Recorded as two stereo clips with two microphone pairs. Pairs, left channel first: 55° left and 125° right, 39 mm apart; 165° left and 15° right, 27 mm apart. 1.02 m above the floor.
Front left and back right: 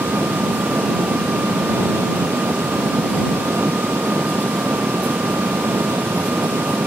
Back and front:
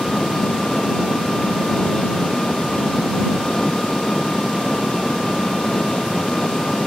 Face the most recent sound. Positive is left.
turn(degrees=-130)